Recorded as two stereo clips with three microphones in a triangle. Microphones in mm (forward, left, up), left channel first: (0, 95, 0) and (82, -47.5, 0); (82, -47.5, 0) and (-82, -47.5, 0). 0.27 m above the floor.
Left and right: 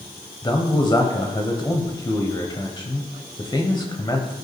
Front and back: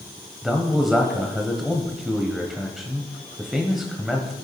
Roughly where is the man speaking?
Left.